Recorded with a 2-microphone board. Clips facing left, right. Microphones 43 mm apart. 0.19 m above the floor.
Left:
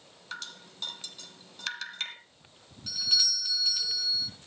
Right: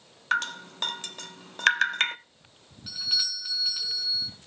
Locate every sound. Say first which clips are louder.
0.3 s dripping: right 15 dB; 55° right (ahead or behind), 0.7 m
2.9 s a doorbell: left 1 dB; 10° right (ahead or behind), 3.5 m